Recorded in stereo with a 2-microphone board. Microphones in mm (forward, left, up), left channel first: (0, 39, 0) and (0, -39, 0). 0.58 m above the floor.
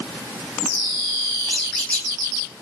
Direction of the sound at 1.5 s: 10° left (ahead or behind).